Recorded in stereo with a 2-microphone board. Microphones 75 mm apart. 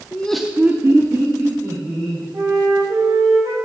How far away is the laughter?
About 0.7 m.